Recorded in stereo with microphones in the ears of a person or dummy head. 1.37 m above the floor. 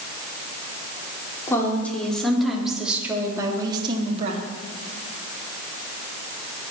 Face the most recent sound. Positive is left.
turn(degrees=-40)  # may be behind; listen again after turning